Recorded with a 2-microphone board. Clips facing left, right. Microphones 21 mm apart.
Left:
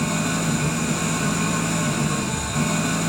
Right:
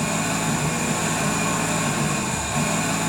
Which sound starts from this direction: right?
An engine running, at 0.0 s.